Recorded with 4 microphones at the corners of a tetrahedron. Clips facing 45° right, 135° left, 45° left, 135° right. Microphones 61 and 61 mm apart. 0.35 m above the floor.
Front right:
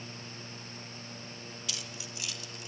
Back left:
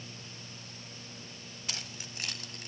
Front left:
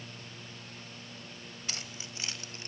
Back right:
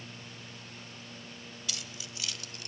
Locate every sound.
1.7 s keys jangling: 95° left, 1.2 m; by 2.7 s 105° left, 1.6 m